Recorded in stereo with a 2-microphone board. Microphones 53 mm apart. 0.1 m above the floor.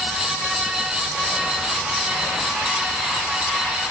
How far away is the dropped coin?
No dropped coin in this recording.